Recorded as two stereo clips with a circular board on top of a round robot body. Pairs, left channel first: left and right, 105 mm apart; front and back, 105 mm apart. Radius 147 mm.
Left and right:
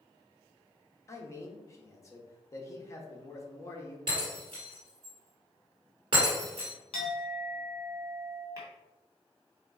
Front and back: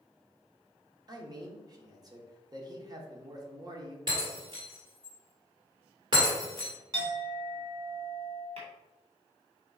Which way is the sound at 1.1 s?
140° left.